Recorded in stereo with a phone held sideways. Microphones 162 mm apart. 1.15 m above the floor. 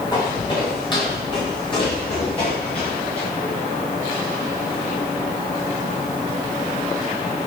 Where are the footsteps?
25° left (ahead or behind), 5.5 m; by 3.3 s 35° left (ahead or behind), 9.5 m.